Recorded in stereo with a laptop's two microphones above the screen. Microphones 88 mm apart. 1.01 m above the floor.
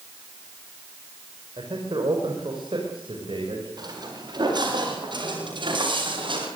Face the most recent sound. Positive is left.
turn(degrees=-70)  # may be behind; listen again after turning